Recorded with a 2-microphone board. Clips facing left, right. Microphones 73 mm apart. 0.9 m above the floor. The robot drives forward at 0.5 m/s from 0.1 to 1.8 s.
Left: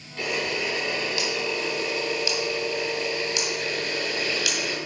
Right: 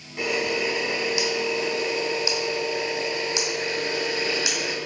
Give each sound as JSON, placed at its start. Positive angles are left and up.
{"t": 0.2, "sound": "a camera shutter", "side_deg": -15, "distance_m": 3.0}